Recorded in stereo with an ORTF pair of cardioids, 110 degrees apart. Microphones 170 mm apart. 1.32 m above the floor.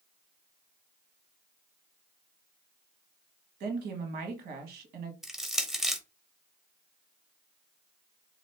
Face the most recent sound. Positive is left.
turn(degrees=0)